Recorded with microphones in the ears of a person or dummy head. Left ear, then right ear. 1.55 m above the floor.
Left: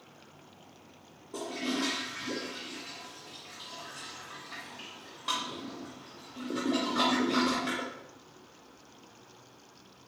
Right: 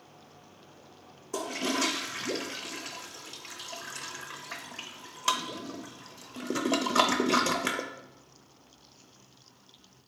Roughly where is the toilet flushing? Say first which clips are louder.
Right 4 dB; right.